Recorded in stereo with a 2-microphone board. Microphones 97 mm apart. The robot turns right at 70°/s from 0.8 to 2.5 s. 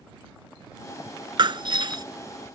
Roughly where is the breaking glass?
Right.